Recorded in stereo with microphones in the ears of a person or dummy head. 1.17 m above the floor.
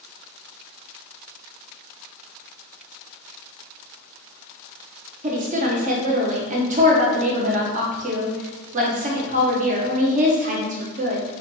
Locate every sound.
5.2 s a woman speaking: 40° right (ahead or behind), 0.7 m